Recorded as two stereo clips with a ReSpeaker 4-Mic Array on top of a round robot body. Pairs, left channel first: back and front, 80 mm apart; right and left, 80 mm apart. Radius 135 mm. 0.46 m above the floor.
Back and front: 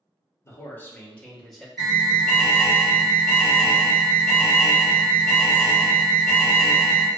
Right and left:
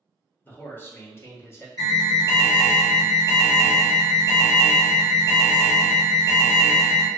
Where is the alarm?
90° right, 2.0 m.